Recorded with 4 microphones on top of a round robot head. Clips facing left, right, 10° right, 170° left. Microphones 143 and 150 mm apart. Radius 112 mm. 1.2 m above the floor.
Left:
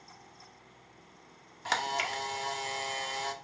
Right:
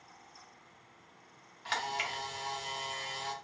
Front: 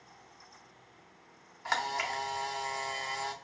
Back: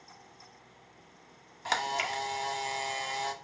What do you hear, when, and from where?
1.6 s a camera shutter: 115° left, 0.6 m